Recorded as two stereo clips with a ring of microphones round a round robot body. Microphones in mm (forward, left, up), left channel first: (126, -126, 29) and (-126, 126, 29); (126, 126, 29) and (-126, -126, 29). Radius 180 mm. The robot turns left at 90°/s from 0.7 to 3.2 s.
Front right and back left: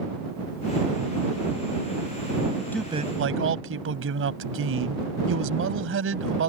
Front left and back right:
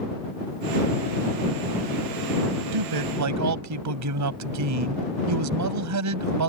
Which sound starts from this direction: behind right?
A man speaking, at 2.7 s.